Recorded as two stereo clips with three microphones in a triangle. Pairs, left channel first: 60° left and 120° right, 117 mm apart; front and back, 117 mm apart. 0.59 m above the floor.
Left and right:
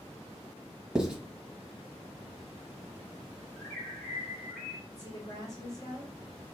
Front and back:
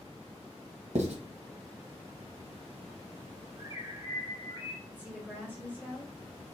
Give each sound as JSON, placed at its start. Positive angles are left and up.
{"t": 0.9, "sound": "writing", "azimuth_deg": 155, "distance_m": 1.0}
{"t": 3.6, "sound": "a bird", "azimuth_deg": 155, "distance_m": 1.6}
{"t": 4.9, "sound": "a woman speaking", "azimuth_deg": 110, "distance_m": 2.0}